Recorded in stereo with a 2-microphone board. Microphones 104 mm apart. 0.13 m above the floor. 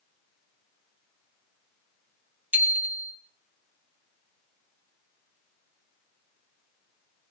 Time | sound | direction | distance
2.5 | a bicycle bell | 15° right (ahead or behind) | 2.5 m